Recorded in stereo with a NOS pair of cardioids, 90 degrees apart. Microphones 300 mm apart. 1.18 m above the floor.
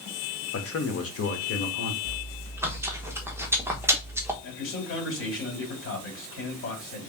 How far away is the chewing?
About 1.1 m.